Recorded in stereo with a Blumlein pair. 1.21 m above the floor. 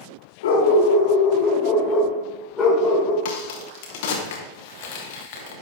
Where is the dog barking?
60° left, 1.9 m; by 3.1 s 5° left, 2.5 m.